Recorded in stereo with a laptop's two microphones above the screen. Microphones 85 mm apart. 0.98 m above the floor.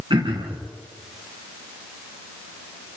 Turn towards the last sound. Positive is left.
turn(degrees=-80)